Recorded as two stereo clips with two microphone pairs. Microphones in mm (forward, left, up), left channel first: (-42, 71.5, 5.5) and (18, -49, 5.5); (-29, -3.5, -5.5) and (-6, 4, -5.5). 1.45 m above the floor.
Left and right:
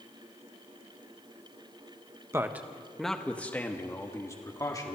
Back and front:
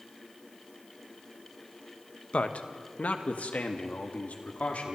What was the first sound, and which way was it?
A man speaking, 135° right.